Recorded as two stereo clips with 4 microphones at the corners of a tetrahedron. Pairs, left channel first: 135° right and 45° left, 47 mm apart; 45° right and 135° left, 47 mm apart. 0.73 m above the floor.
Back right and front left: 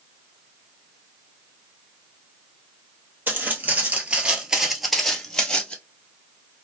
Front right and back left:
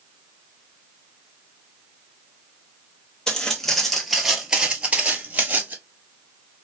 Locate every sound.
3.3 s footsteps: 25° left, 1.0 m; by 5.8 s 170° left, 0.9 m